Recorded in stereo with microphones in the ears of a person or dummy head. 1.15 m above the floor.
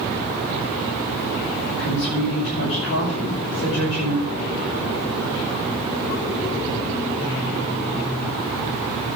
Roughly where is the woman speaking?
Left.